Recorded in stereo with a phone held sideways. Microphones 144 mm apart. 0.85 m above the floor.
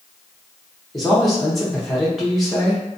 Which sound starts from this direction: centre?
A man speaking, at 0.9 s.